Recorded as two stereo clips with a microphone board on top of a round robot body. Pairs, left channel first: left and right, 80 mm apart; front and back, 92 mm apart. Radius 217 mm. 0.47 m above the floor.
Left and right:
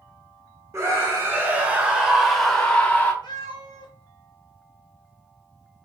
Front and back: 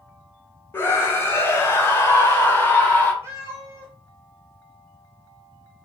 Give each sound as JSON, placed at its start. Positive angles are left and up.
{"t": 0.7, "sound": "a scream", "azimuth_deg": -55, "distance_m": 1.5}
{"t": 3.2, "sound": "a cat meowing", "azimuth_deg": 115, "distance_m": 1.2}